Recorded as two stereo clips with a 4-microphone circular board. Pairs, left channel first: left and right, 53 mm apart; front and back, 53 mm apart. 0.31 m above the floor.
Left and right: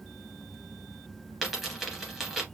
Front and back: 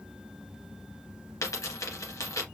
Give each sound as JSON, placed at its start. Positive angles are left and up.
{"t": 1.4, "sound": "a dropped coin", "azimuth_deg": 0, "distance_m": 2.5}